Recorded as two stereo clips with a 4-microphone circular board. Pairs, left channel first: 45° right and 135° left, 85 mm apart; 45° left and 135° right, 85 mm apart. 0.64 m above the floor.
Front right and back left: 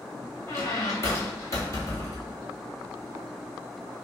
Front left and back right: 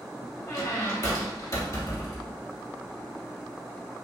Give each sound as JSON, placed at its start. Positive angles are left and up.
{"t": 0.5, "sound": "a squeak", "azimuth_deg": 5, "distance_m": 1.2}